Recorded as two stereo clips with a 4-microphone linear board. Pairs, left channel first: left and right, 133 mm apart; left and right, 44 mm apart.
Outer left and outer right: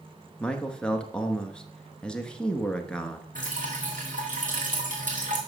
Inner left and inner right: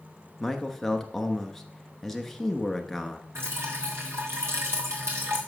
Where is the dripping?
80° right, 2.5 m.